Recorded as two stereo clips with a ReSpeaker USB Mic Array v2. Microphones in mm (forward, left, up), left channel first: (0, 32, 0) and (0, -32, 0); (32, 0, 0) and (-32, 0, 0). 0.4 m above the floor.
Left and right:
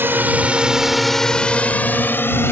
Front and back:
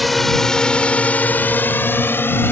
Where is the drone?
90° right; by 2.5 s 45° left.